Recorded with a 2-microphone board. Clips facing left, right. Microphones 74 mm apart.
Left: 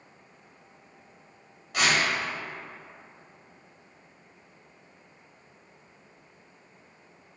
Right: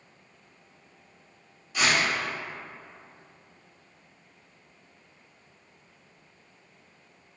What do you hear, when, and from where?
1.7 s tearing paper: 70° left (ahead or behind), 1.6 m